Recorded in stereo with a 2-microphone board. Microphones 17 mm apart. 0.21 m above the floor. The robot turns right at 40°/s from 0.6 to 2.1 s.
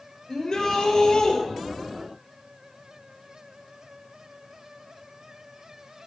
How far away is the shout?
About 5 m.